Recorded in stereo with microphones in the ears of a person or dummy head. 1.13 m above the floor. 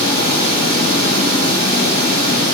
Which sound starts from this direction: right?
Running water, at 0.0 s.